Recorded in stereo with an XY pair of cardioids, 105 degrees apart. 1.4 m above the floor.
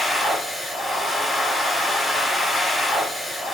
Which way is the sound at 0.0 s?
5° left.